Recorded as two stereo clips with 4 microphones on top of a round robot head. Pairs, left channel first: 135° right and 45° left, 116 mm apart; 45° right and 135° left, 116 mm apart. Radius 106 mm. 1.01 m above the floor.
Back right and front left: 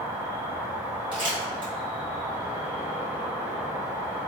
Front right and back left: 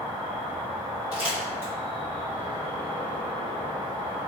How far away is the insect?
About 1.9 m.